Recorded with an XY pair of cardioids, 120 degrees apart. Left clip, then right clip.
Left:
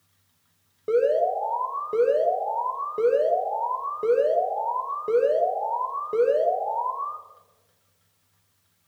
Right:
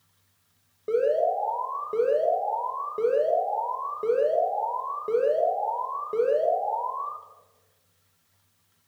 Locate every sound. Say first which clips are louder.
0.9 s an alarm: left 2 dB; 20° left, 1.1 m